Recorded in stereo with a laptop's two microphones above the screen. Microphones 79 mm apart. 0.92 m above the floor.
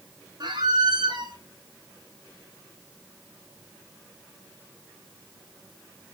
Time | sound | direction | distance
0.4 | a squeak | 60° right (ahead or behind) | 1.9 m